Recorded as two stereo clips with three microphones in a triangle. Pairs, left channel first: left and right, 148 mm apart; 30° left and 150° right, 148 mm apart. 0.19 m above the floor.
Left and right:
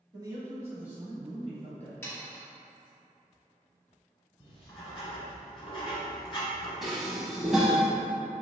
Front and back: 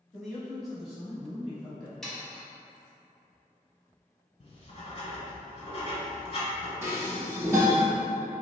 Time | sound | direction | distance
0.1 | a man speaking | 60° right | 1.2 m
2.0 | sawing | 110° left | 1.0 m
4.4 | writing | 55° left | 1.2 m
6.8 | dishes clattering | 175° right | 0.7 m